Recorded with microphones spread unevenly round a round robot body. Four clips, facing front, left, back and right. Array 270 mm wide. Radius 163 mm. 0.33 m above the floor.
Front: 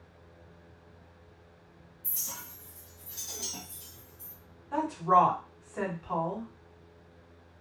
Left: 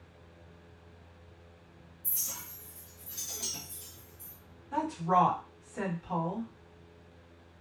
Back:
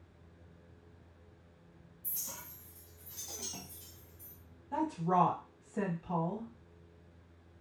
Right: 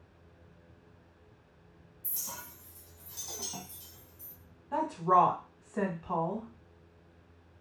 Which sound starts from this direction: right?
A clink, at 2.0 s.